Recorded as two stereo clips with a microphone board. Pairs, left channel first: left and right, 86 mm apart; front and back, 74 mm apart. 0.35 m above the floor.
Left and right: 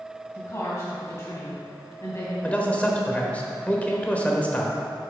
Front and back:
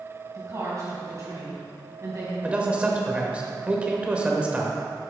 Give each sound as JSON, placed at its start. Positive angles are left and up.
{"t": 0.3, "sound": "a woman speaking", "azimuth_deg": 140, "distance_m": 2.5}
{"t": 2.4, "sound": "a man speaking", "azimuth_deg": 135, "distance_m": 0.9}